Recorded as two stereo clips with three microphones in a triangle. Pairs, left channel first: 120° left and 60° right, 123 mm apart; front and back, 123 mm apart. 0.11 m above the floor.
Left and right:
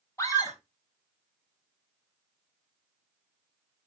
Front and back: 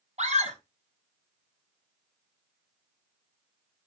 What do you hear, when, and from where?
0.2 s a scream: 175° right, 4 m